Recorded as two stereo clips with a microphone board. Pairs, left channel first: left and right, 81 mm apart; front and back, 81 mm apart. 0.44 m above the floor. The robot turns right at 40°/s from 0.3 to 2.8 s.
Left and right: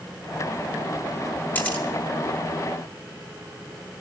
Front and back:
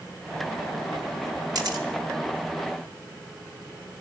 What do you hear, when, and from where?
1.6 s a camera shutter: 150° left, 2 m; by 1.9 s 165° left, 2 m